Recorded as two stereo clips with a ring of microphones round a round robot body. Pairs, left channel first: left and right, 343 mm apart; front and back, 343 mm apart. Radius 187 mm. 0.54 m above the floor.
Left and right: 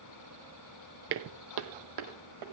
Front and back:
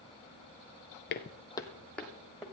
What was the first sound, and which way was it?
Footsteps, 45° right.